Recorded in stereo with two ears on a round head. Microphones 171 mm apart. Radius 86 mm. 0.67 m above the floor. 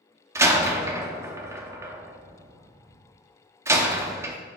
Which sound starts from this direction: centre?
A door slam, at 0.3 s.